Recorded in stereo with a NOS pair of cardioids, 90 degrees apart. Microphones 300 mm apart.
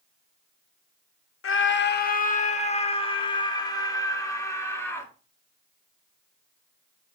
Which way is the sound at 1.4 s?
50° left.